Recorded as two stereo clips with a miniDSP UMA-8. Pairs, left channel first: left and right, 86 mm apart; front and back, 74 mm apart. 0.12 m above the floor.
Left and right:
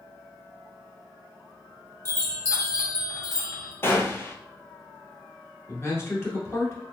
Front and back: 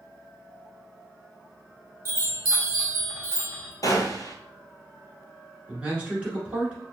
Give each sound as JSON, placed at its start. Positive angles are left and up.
{"t": 2.0, "sound": "a chime", "azimuth_deg": 130, "distance_m": 1.8}
{"t": 3.8, "sound": "a gunshot", "azimuth_deg": 30, "distance_m": 0.7}
{"t": 5.7, "sound": "a man speaking", "azimuth_deg": 115, "distance_m": 1.4}